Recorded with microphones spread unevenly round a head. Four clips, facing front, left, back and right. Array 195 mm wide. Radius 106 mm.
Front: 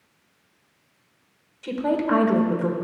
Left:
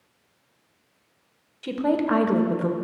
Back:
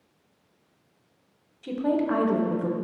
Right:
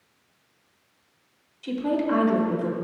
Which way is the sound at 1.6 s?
40° left.